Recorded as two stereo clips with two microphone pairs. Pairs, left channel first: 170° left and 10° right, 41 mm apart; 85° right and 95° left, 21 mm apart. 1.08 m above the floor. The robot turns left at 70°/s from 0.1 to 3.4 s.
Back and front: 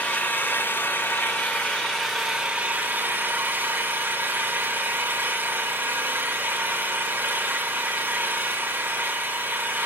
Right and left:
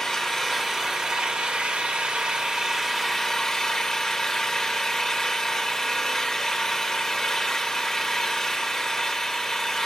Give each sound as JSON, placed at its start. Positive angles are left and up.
{"t": 0.0, "sound": "an engine running", "azimuth_deg": -130, "distance_m": 2.5}